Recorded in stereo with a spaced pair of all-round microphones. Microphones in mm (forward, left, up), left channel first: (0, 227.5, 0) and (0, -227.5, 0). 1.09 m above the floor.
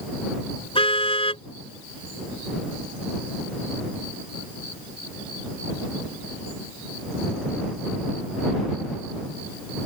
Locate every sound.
0.8 s a car horn: 10° left (ahead or behind)